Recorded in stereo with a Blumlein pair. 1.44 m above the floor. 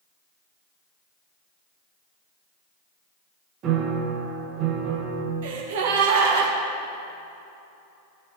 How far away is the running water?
No running water in this recording.